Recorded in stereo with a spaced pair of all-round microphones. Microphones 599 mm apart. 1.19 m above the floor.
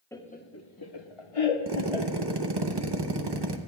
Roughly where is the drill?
Right.